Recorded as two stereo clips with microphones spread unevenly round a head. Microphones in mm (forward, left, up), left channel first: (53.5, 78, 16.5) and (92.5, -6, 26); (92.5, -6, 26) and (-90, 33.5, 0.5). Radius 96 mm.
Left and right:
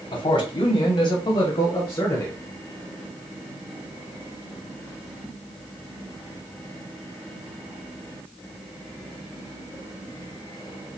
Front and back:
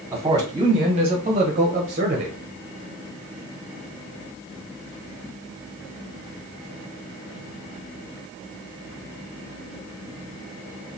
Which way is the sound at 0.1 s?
100° left.